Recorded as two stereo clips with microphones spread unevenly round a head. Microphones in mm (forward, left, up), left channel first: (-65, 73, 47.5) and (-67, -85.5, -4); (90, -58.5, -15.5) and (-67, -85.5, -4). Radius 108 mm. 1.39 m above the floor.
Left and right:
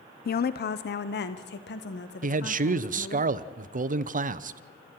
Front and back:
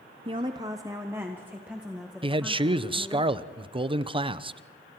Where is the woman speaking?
125° left, 0.6 m; by 3.2 s 100° left, 2.0 m.